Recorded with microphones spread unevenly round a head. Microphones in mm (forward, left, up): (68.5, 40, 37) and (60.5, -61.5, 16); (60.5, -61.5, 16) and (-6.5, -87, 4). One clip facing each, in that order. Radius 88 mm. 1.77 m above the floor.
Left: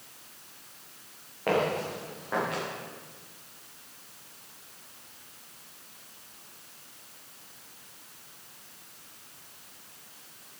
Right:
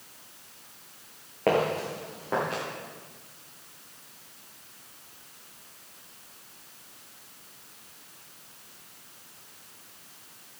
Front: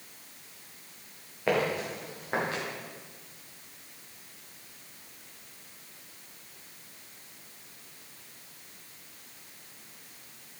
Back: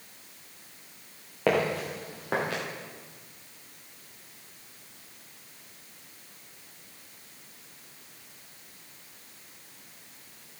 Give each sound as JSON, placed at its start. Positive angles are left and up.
{"t": 1.5, "sound": "footsteps", "azimuth_deg": -155, "distance_m": 6.0}